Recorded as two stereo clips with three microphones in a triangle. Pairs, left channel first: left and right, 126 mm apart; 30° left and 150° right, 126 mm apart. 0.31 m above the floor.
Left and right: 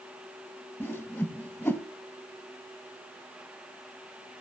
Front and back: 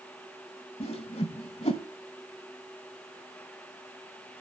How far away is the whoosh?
About 0.8 m.